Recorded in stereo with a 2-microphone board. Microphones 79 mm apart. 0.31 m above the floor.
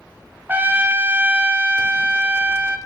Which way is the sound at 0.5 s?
25° right (ahead or behind).